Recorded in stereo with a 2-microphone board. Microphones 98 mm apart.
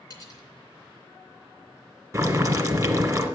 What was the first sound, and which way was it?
Cutlery clinking, 40° left (ahead or behind).